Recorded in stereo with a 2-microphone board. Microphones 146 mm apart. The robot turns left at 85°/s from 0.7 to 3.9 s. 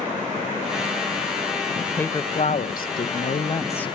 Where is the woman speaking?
175° right, 1.0 m; by 3.9 s 10° left, 1.0 m.